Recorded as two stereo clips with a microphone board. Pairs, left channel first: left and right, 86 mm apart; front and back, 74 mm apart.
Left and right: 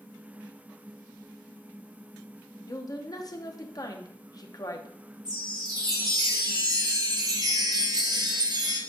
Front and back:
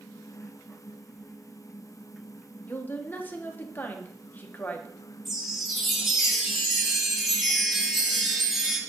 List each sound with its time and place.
2.7 s a woman speaking: 60° left, 1.0 m
5.2 s a chime: 90° right, 1.5 m